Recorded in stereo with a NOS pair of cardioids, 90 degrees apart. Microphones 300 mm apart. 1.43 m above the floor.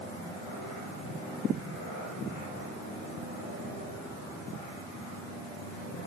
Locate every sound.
Only background noise.